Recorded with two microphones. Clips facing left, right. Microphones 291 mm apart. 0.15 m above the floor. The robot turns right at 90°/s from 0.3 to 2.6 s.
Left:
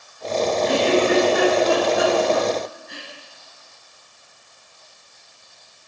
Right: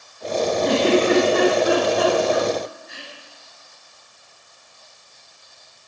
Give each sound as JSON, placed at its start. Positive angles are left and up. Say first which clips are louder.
{"t": 0.7, "sound": "a giggle", "louder": "right 2 dB", "side_deg": -65, "distance_m": 9.0}